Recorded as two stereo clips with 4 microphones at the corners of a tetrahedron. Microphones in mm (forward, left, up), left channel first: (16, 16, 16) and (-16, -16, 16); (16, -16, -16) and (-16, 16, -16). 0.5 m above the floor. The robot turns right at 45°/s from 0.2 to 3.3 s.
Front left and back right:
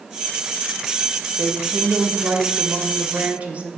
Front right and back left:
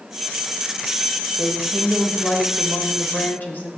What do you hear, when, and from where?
1.4 s a woman speaking: 170° right, 2 m; by 3.7 s 80° right, 2 m